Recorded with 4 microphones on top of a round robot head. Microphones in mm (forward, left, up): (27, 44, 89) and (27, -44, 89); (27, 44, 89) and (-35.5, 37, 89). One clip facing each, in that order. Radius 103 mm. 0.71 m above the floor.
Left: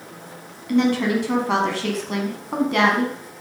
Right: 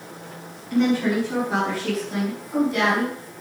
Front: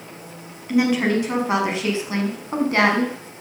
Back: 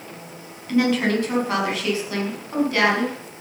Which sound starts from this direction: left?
A woman speaking, at 0.7 s.